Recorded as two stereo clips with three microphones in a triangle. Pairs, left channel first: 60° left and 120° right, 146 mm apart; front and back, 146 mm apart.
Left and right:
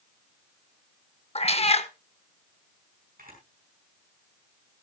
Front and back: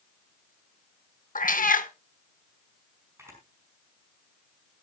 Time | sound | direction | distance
1.4 | a cat meowing | 15° left | 0.8 m
3.2 | a camera shutter | 110° right | 5.5 m